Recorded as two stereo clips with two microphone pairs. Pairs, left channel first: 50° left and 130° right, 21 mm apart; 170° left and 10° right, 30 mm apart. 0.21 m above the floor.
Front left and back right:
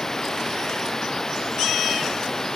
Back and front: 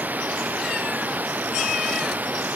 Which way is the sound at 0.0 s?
20° right.